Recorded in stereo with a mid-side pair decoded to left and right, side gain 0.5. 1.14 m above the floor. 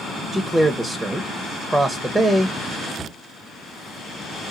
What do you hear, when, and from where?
0.3 s a man speaking: 10° right, 0.5 m
3.0 s a cupboard door: 10° left, 0.8 m